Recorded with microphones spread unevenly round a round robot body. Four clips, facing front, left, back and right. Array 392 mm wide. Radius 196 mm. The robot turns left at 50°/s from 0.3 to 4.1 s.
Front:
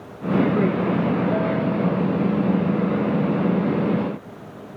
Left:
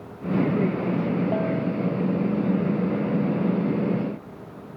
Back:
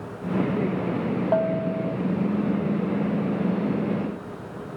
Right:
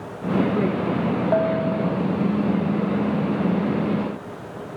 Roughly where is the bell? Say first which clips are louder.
Right 4 dB, front 1 dB; behind right.